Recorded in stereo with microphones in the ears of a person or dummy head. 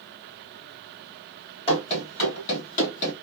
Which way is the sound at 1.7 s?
30° left (ahead or behind).